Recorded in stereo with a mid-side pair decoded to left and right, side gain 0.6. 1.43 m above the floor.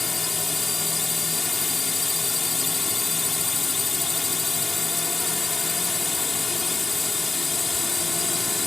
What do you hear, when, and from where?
0.0 s a drone: 15° left